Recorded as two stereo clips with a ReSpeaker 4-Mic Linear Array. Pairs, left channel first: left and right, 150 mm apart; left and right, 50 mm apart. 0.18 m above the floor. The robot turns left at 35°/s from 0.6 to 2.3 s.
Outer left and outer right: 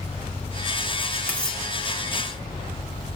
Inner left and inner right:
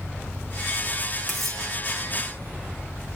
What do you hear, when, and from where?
1.3 s cutlery clinking: 10° left (ahead or behind), 0.6 m; by 1.6 s 5° left (ahead or behind), 0.6 m